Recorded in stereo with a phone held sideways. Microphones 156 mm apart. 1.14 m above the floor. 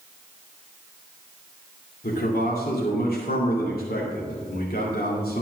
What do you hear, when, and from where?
2.0 s a man speaking: 80° left, 2.5 m